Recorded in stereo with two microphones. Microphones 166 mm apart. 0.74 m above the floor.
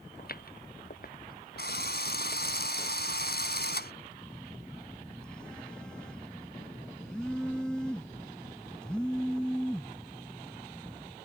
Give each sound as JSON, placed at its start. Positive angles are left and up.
{"t": 0.2, "sound": "footsteps", "side_deg": 65}
{"t": 1.6, "sound": "a drill", "side_deg": 75}
{"t": 4.2, "sound": "a phone buzzing", "side_deg": 5}